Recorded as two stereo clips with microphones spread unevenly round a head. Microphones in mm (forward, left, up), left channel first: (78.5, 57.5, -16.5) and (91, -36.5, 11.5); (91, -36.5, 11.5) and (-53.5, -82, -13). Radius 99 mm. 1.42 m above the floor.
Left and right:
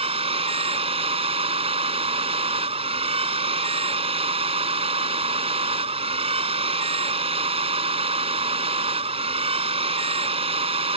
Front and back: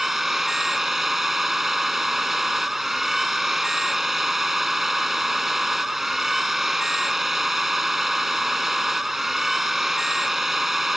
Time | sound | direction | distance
0.0 | a machine running | 70° right | ?